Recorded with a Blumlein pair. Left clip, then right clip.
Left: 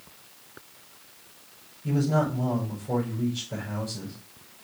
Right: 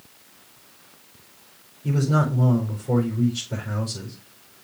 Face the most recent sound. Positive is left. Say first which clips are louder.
# right 1 dB
turn(degrees=-50)